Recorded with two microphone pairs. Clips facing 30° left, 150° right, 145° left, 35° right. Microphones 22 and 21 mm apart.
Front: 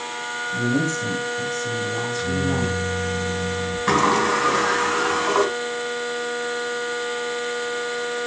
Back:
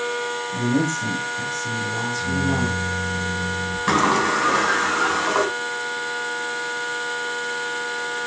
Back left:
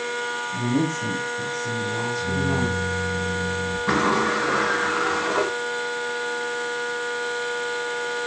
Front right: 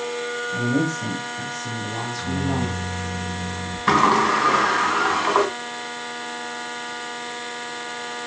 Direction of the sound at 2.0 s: 30° right.